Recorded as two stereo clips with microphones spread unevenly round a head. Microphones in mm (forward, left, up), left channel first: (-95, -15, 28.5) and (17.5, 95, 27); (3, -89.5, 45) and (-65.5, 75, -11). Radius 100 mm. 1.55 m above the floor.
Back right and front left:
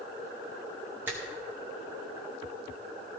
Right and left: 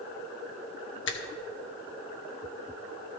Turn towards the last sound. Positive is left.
turn(degrees=-35)